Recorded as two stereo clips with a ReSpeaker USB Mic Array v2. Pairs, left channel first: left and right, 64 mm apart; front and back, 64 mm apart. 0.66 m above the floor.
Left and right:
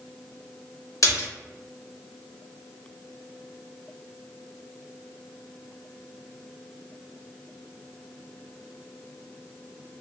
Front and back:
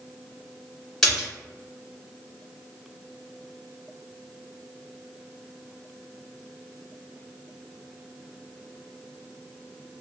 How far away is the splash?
About 1.8 m.